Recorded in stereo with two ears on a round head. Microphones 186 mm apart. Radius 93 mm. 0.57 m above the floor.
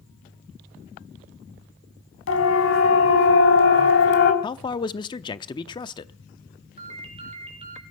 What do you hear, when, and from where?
2.3 s a siren: 70° left (ahead or behind), 3.5 m; by 4.3 s 55° left (ahead or behind), 2.5 m
4.4 s a man speaking: 20° left (ahead or behind), 0.7 m
6.8 s a ringtone: 30° right (ahead or behind), 4.5 m